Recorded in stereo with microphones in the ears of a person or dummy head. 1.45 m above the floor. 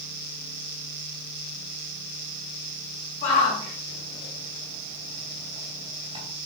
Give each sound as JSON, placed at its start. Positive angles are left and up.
{"t": 3.2, "sound": "a shout", "side_deg": 40, "distance_m": 3.5}